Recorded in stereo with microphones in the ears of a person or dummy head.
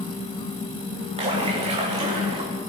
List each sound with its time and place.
1.2 s a splash: 20° right (ahead or behind), 2.5 m